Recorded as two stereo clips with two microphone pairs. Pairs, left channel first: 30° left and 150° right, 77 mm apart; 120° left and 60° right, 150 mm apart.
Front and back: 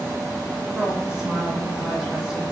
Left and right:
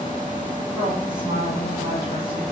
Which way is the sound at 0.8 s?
75° right.